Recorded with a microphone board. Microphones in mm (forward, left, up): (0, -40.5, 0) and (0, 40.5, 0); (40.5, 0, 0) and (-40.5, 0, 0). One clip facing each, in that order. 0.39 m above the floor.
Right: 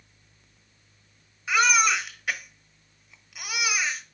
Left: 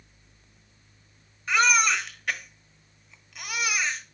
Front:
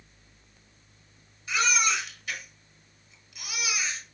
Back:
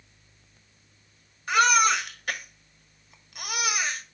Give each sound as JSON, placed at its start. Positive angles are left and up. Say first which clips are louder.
{"t": 1.5, "sound": "a baby crying", "louder": "right 1 dB, back 7 dB", "azimuth_deg": -175, "distance_m": 1.3}